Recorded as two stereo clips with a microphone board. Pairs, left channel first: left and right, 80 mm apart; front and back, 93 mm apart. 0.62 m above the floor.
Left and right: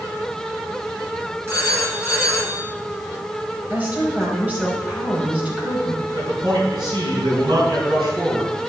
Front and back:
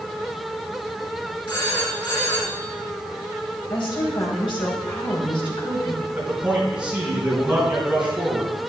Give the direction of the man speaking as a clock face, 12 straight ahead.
3 o'clock.